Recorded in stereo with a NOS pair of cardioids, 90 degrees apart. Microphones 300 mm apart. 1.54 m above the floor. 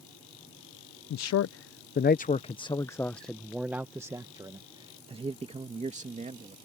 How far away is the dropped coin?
I don't hear a dropped coin.